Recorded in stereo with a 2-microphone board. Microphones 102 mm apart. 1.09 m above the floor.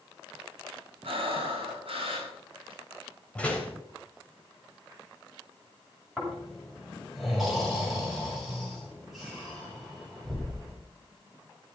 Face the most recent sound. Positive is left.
turn(degrees=0)  # may be behind; listen again after turning